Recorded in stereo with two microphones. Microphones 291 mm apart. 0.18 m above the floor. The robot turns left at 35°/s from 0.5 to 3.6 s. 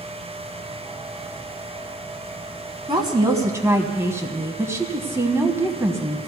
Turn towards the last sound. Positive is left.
turn(degrees=-10)  # may be behind; listen again after turning